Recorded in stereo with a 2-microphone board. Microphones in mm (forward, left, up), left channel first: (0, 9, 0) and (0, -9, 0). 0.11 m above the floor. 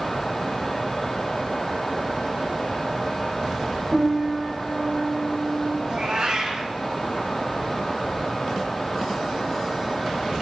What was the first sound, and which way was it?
A piano, 25° right (ahead or behind).